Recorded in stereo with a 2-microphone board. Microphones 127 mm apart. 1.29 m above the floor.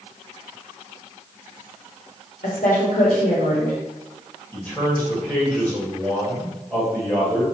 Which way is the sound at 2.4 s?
80° left.